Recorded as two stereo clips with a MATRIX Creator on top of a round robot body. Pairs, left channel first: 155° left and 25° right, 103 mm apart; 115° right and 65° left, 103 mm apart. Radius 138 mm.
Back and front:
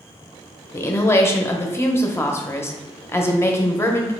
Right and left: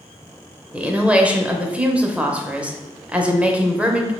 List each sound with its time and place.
0.7 s a woman speaking: 130° left, 0.8 m